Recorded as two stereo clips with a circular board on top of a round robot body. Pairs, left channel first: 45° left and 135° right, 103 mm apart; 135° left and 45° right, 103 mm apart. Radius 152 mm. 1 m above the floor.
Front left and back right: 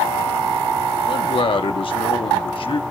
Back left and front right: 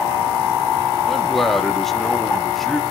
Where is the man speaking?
45° left, 1.3 m.